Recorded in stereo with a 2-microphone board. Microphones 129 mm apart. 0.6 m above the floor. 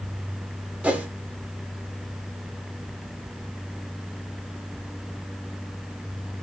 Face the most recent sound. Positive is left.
turn(degrees=-10)  # may be behind; listen again after turning